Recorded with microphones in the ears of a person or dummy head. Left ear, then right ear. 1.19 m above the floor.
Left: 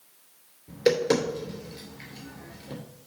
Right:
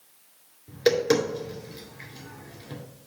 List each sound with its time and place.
0.7 s tapping: 5° right (ahead or behind), 2.5 m